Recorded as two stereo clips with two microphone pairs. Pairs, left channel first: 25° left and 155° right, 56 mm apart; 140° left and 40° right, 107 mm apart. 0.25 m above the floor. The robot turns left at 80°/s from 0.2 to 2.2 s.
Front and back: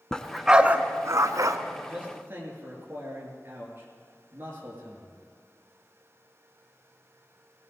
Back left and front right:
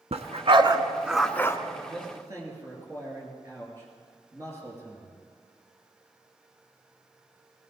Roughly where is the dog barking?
Ahead right.